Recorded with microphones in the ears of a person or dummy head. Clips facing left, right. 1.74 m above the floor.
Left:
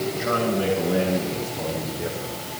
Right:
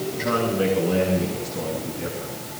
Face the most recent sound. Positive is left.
turn(degrees=-60)  # may be behind; listen again after turning